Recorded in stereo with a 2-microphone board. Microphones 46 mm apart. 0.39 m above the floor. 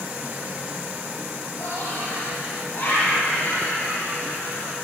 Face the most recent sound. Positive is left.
turn(degrees=45)  # may be behind; listen again after turning